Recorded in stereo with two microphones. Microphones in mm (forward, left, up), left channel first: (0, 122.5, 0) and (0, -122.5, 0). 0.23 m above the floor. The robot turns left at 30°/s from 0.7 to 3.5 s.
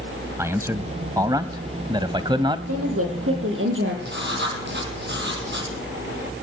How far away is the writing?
About 6 m.